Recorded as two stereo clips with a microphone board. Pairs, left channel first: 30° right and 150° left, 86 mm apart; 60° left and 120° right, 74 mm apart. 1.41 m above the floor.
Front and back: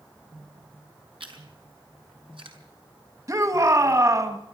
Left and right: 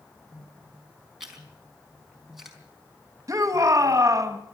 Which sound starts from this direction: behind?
A shout, at 3.3 s.